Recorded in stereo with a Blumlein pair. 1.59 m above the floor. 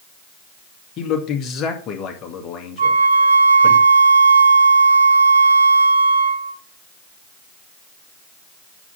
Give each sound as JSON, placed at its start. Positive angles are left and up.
{"t": 1.0, "sound": "a man speaking", "azimuth_deg": 30, "distance_m": 2.0}
{"t": 2.8, "sound": "a flute", "azimuth_deg": -70, "distance_m": 0.7}